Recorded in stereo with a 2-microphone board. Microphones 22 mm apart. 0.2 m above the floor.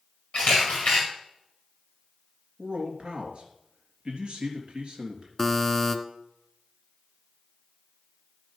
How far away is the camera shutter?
About 4.5 m.